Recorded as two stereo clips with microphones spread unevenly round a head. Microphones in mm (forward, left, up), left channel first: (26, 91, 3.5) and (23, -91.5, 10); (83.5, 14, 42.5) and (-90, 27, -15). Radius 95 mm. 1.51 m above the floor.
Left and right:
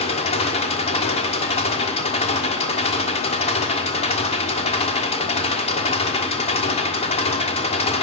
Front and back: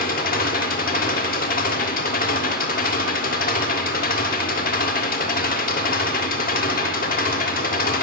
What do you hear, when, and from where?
0.0 s an engine running: 30° left, 3 m